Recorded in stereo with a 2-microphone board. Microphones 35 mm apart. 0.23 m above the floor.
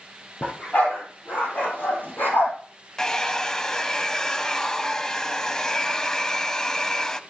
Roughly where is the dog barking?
Left.